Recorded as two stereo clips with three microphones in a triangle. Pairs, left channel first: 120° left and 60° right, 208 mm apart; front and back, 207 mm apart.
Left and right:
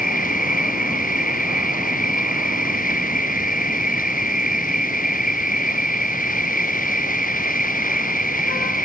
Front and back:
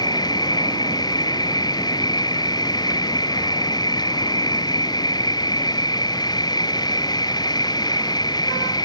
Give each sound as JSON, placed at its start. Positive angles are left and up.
{"t": 0.0, "sound": "an insect", "azimuth_deg": 70}